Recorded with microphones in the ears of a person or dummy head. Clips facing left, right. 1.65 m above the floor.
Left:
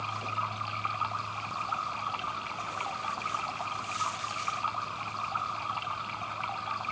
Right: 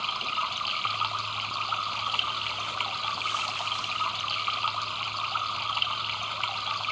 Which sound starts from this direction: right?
Running water, at 0.0 s.